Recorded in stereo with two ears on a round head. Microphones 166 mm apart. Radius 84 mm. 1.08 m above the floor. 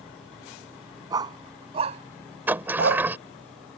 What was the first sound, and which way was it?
A dog barking, 20° right (ahead or behind).